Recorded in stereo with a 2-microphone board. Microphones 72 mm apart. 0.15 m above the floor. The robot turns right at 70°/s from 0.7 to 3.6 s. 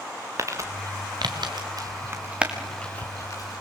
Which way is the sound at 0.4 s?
45° right (ahead or behind).